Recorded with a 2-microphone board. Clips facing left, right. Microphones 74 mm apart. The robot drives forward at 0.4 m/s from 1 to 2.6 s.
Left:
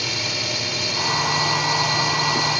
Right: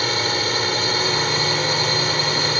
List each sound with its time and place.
0.0 s a drone: 55° right (ahead or behind); by 2.6 s 50° right (ahead or behind)